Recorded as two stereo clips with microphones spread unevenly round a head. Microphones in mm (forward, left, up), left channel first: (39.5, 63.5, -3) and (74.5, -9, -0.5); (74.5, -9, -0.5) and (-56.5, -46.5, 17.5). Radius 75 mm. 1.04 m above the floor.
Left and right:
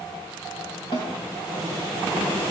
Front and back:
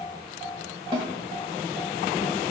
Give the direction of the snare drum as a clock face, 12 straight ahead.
7 o'clock.